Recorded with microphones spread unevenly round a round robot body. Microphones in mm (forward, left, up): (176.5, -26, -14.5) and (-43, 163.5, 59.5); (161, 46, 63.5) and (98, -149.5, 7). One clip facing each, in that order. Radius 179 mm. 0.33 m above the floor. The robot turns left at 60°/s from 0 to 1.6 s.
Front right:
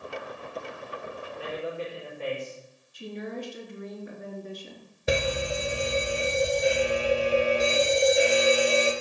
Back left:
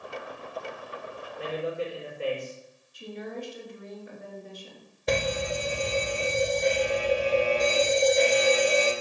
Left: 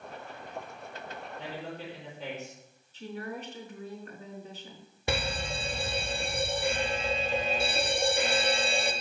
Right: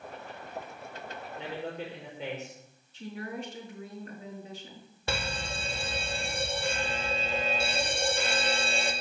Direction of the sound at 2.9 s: 55° right.